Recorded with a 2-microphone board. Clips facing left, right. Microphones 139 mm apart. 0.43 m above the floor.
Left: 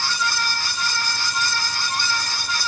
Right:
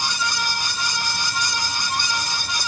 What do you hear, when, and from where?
Only background noise.